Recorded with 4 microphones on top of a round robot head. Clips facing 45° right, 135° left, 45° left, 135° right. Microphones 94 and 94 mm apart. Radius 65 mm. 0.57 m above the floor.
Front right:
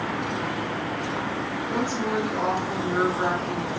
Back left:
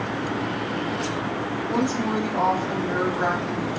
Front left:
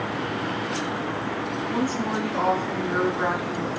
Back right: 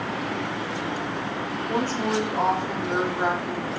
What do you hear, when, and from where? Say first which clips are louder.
1.7 s a woman speaking: back left 3 dB, back right 2 dB; 160° left, 2 m